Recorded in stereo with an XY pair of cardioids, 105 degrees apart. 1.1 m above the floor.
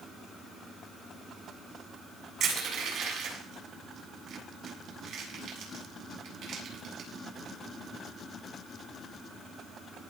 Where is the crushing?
65° right, 8 m.